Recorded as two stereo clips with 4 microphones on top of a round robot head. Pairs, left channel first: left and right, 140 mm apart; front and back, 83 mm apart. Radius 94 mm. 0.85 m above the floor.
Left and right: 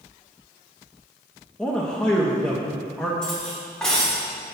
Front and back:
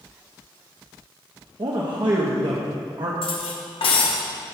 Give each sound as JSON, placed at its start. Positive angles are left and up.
{"t": 1.6, "sound": "a man speaking", "azimuth_deg": 175, "distance_m": 0.9}
{"t": 3.2, "sound": "cutlery clinking", "azimuth_deg": 5, "distance_m": 1.2}